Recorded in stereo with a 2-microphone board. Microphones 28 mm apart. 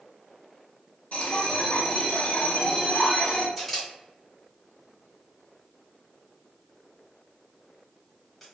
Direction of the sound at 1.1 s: 55° left (ahead or behind).